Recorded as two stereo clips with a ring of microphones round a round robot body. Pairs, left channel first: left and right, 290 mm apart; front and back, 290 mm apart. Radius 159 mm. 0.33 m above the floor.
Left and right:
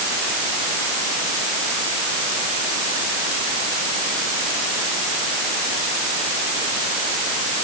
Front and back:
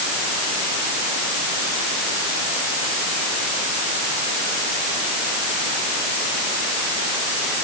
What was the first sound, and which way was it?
Only background noise.